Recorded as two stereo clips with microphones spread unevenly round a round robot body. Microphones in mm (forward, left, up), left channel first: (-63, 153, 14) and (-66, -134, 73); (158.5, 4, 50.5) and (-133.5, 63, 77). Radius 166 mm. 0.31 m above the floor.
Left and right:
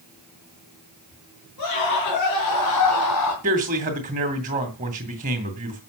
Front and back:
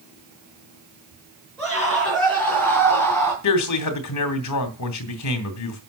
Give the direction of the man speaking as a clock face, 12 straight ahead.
1 o'clock.